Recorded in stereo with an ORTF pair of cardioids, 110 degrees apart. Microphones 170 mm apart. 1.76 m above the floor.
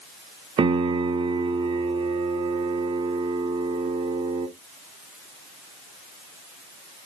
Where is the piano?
30° right, 0.9 m.